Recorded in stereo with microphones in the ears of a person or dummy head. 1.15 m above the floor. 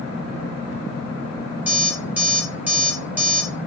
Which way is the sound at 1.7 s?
15° right (ahead or behind).